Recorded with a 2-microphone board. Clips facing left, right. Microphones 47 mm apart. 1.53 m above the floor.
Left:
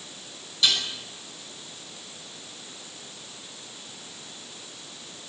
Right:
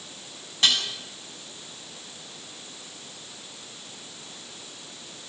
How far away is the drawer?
I don't hear a drawer.